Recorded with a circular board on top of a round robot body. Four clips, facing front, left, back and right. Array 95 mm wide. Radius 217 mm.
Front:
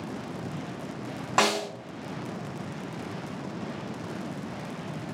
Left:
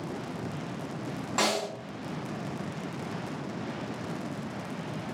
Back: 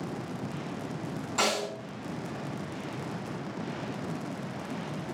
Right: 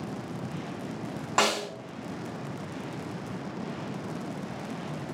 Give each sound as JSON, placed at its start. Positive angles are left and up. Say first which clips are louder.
{"t": 1.4, "sound": "a snare drum", "louder": "right 2 dB, front 5 dB", "azimuth_deg": -35, "distance_m": 1.6}